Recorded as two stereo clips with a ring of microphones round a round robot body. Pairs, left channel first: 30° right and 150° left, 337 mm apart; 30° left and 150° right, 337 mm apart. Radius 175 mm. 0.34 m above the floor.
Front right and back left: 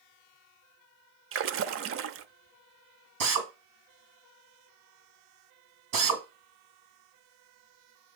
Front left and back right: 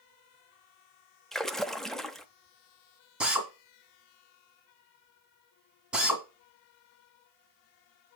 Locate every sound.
1.3 s a splash: 120° left, 0.6 m
3.2 s a drill: 125° left, 2 m